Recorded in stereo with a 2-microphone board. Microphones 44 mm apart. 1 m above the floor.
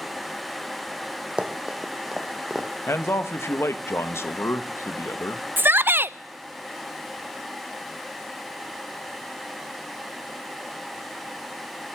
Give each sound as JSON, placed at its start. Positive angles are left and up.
{"t": 1.4, "sound": "running footsteps", "side_deg": -20, "distance_m": 1.6}
{"t": 2.9, "sound": "a man speaking", "side_deg": 70, "distance_m": 0.8}
{"t": 5.6, "sound": "a shout", "side_deg": -55, "distance_m": 0.5}